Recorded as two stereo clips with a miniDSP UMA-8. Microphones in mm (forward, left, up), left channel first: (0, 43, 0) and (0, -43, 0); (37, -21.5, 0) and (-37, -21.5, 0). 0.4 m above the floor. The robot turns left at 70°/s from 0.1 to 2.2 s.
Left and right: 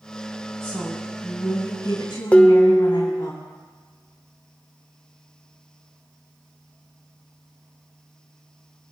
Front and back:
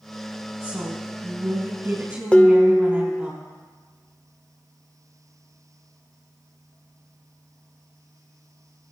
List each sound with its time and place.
0.6 s a woman speaking: 140° right, 2.5 m; by 3.3 s 110° left, 2.5 m
2.3 s dishes clattering: 50° left, 0.6 m